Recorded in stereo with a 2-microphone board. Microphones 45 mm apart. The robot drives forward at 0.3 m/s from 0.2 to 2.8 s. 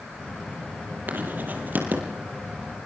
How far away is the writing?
About 6.5 m.